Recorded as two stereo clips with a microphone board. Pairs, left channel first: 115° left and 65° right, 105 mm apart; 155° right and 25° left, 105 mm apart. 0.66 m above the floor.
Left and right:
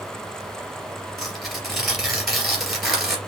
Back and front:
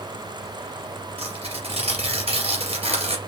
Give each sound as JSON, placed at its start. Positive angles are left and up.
{"t": 1.2, "sound": "tearing paper", "azimuth_deg": 20, "distance_m": 2.5}